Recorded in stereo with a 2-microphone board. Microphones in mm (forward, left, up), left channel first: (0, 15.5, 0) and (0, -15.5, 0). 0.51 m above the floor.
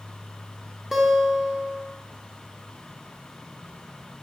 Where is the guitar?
10° right (ahead or behind), 0.5 m.